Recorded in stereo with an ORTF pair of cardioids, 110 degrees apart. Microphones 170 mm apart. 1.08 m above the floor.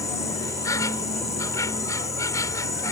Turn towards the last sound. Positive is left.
turn(degrees=20)